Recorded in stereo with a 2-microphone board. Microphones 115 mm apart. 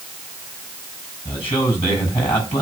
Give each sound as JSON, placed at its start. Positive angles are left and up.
{"t": 1.2, "sound": "a man speaking", "side_deg": 60, "distance_m": 6.5}